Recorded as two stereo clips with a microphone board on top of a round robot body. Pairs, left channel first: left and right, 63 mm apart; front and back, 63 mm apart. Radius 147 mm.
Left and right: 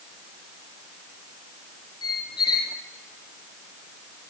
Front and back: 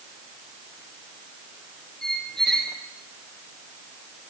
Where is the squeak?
85° left, 1.9 m.